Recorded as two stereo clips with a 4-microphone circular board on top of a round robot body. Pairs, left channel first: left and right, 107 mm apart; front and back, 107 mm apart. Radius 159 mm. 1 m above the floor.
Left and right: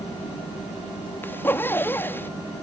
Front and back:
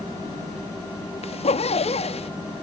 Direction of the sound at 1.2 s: 20° left.